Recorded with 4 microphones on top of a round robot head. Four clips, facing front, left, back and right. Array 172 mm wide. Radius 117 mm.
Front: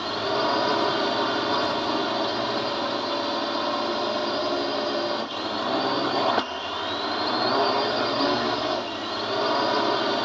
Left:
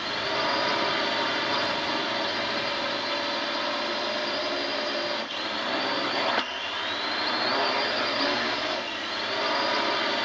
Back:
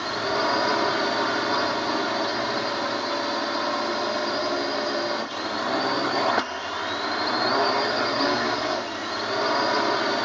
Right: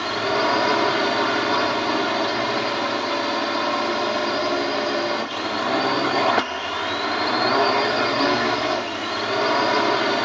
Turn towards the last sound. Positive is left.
turn(degrees=-80)